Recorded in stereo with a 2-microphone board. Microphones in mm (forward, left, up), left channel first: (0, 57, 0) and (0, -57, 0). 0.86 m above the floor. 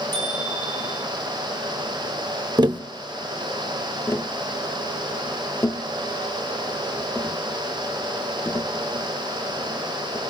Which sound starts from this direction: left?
Tapping, at 4.1 s.